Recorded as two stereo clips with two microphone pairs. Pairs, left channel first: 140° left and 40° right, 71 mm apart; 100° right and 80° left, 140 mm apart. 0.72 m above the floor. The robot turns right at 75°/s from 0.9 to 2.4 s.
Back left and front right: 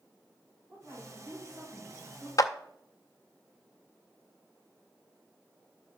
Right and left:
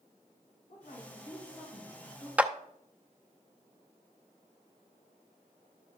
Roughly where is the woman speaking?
Right.